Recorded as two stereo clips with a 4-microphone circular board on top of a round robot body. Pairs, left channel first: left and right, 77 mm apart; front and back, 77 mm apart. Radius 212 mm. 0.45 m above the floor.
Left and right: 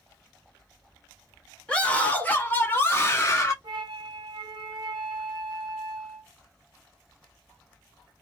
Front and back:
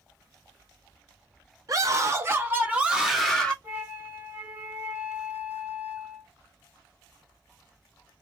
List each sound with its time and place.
1.7 s a scream: 160° left, 1.5 m; by 3.5 s 75° left, 1.3 m
3.6 s a flute: 110° right, 0.8 m